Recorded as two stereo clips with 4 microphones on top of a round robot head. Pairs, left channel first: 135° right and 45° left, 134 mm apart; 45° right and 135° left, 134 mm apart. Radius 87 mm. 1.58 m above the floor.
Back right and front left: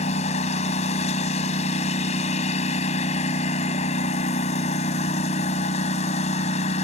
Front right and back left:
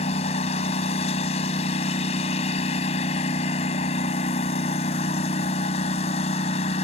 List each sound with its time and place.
0.0 s a lawn mower: 95° right